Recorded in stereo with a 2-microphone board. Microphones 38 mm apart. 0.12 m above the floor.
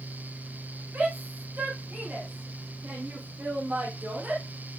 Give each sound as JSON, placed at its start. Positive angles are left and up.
{"t": 0.9, "sound": "a shout", "side_deg": -50, "distance_m": 7.0}